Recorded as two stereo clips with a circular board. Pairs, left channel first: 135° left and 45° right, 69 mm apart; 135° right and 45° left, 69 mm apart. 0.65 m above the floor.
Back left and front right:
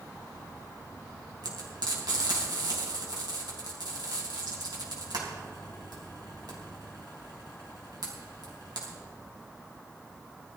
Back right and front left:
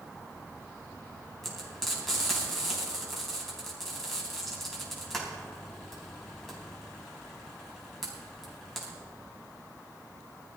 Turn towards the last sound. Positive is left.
turn(degrees=-50)